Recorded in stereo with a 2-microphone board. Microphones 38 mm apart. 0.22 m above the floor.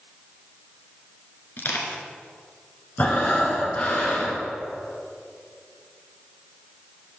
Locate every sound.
1.6 s crushing: 70° left (ahead or behind), 1.2 m
3.0 s breathing: 45° left (ahead or behind), 1.4 m